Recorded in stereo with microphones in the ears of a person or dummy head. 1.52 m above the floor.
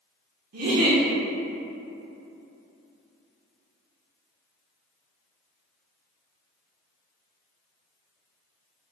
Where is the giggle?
50° right (ahead or behind), 0.9 m.